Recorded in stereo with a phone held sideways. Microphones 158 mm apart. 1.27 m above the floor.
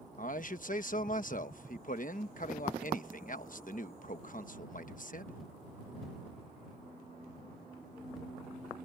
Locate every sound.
0.2 s a man speaking: 60° left (ahead or behind)